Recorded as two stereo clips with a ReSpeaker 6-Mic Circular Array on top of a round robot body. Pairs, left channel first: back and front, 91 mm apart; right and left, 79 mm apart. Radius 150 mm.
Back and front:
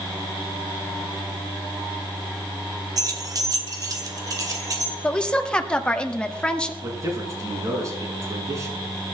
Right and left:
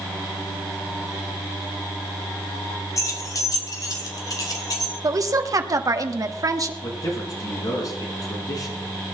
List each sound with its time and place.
3.0 s keys jangling: 45° right, 1.8 m; by 4.9 s 50° right, 3 m
5.0 s a woman speaking: 105° left, 1.7 m
6.8 s a man speaking: 50° right, 6.5 m